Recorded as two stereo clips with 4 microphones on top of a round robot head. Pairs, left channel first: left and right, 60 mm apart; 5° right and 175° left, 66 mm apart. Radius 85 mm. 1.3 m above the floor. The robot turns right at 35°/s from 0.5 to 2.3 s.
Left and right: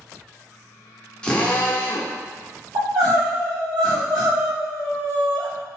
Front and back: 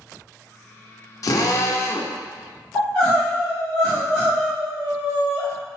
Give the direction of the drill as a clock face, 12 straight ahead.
11 o'clock.